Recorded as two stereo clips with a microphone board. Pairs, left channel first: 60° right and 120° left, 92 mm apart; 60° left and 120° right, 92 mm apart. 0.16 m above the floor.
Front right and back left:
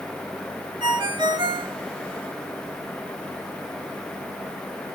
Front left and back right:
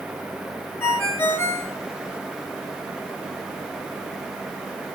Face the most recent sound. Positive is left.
turn(degrees=120)